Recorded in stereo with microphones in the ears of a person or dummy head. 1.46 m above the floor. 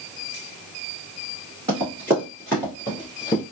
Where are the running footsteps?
20° right (ahead or behind), 1.4 m; by 3.4 s 25° left (ahead or behind), 1.7 m.